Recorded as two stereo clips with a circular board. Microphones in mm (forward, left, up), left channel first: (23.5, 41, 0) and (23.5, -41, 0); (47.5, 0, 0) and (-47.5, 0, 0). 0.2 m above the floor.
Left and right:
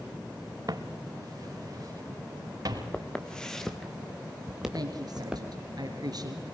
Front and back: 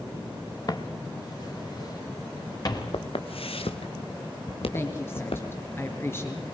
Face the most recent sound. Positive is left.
turn(degrees=-65)